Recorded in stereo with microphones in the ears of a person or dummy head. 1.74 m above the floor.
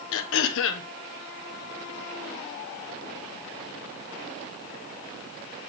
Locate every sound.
0.1 s throat clearing: 70° left (ahead or behind), 1.2 m